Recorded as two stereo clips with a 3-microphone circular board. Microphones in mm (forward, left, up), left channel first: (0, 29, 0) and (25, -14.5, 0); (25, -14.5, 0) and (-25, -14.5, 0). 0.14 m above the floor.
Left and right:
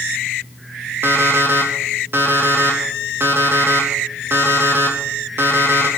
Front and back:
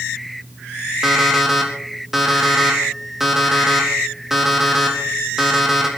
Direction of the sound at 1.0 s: 100° right.